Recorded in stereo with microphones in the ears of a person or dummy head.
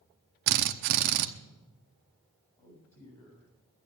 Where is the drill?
50° right (ahead or behind), 0.8 m.